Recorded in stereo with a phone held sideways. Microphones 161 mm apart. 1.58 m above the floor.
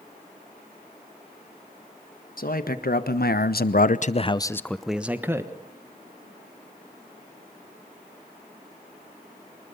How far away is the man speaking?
About 1.8 m.